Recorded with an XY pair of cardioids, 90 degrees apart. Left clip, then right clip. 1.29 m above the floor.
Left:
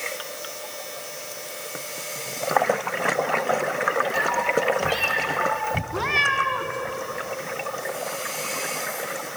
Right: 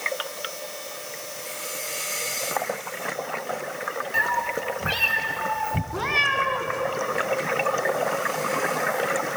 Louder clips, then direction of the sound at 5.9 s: Left 1 dB; 10° left.